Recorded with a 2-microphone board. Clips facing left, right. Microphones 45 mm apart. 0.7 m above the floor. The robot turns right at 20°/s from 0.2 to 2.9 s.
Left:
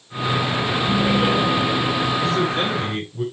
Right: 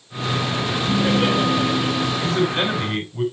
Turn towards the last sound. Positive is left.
turn(degrees=-55)  # may be behind; listen again after turning